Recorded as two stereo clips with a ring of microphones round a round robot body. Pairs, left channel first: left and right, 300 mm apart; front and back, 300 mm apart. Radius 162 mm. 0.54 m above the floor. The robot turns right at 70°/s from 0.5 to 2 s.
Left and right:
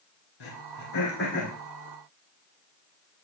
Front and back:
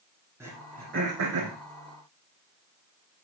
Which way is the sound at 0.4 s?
100° left.